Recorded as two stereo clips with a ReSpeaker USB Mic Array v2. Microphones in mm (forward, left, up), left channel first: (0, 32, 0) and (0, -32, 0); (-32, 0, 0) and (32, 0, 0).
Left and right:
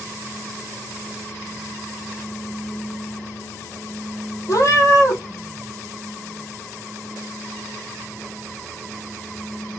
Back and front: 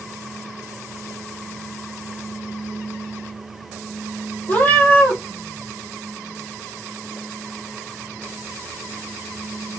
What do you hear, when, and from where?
4.5 s a cat meowing: 120° left, 1.8 m